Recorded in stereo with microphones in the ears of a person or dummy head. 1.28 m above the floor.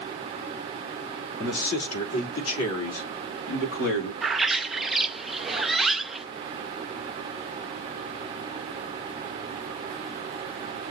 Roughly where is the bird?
Centre.